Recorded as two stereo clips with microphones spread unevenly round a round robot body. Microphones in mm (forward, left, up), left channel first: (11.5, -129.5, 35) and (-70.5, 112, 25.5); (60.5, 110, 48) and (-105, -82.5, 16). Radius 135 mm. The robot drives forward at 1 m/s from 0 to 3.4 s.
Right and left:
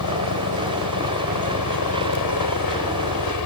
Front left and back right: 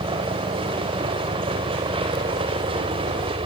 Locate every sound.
0.0 s a helicopter: 55° right; by 3.5 s 60° right